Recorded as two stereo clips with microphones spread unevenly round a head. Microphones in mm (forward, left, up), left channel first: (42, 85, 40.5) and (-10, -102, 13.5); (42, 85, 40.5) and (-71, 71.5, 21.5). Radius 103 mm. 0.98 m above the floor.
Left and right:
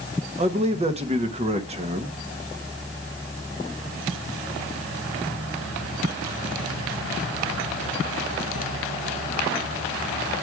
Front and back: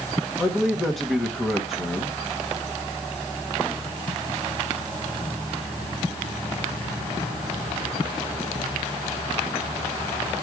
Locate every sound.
0.4 s a man speaking: 90° right, 1.0 m